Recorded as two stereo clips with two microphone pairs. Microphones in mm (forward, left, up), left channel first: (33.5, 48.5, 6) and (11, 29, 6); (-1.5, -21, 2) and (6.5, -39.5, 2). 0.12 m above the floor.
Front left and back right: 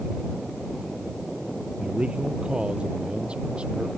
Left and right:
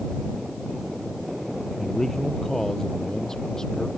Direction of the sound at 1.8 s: 175° left.